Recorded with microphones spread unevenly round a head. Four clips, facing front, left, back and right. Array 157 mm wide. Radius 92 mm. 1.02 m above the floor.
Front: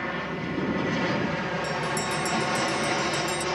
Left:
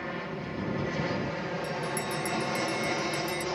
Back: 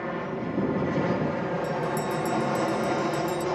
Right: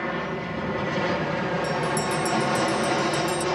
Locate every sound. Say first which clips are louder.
0.0 s an aircraft: right 7 dB, back 1 dB; 115° right
1.6 s a bell: right 7 dB, back 1 dB; 100° left